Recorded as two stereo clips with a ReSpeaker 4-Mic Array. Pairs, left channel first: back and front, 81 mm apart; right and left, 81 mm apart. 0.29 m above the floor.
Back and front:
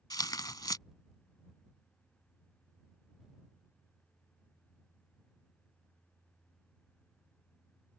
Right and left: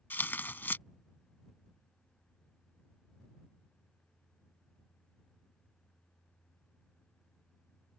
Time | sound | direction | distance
0.1 | tearing paper | 155° right | ?